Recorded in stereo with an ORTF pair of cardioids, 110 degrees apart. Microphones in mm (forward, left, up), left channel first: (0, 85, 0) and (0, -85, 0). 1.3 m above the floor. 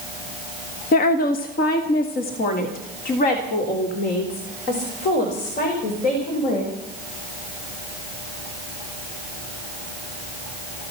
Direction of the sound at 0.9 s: 55° left.